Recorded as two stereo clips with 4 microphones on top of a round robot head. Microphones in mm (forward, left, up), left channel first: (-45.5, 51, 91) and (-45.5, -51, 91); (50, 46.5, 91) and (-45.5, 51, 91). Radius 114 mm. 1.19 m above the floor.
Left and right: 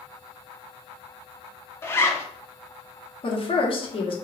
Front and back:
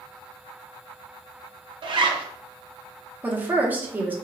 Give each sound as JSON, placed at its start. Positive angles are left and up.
{"t": 1.8, "sound": "a zipper", "azimuth_deg": 155, "distance_m": 0.6}
{"t": 3.2, "sound": "a woman speaking", "azimuth_deg": 105, "distance_m": 0.9}